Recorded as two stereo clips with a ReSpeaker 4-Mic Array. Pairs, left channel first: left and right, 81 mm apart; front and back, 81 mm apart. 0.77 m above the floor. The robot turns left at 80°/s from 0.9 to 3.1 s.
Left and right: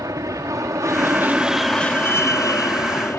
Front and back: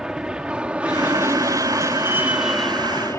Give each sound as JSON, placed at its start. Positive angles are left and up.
{"t": 0.0, "sound": "an aircraft", "azimuth_deg": -100}